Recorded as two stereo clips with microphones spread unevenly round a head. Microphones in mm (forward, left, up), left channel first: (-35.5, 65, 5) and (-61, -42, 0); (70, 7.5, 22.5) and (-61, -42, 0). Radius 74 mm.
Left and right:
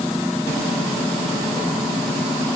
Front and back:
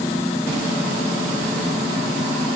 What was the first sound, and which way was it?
Only background noise.